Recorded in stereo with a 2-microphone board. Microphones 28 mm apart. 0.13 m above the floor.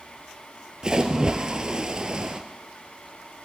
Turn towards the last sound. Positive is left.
turn(degrees=-30)  # may be behind; listen again after turning